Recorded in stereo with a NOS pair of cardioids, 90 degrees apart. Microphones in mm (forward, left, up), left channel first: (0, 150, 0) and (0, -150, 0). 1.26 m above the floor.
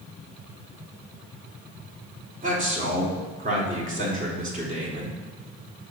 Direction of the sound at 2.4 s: 30° right.